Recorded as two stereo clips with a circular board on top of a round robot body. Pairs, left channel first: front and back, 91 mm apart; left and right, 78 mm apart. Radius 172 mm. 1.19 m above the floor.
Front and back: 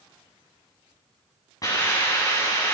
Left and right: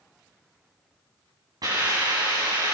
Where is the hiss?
50° right, 9.5 m.